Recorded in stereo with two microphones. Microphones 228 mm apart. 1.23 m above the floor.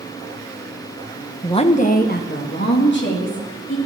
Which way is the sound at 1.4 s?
20° left (ahead or behind).